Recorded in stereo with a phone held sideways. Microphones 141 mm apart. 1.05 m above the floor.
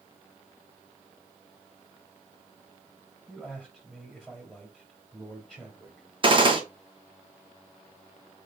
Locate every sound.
3.3 s a man speaking: centre (ahead or behind), 3 m
6.2 s a gunshot: 35° right (ahead or behind), 1.0 m